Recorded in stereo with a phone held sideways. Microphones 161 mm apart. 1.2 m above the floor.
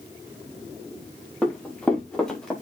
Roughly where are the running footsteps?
Centre.